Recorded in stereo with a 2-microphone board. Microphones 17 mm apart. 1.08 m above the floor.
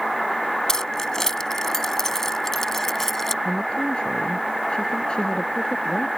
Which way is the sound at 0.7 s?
30° left (ahead or behind).